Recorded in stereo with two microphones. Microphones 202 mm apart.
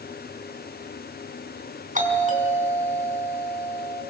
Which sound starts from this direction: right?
A doorbell, at 1.9 s.